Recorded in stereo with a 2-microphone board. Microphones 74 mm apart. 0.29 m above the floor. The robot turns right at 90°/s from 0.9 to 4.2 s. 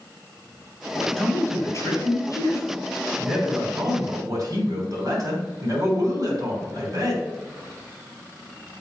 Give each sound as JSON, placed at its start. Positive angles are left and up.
{"t": 1.2, "sound": "a man speaking", "azimuth_deg": 5, "distance_m": 3.0}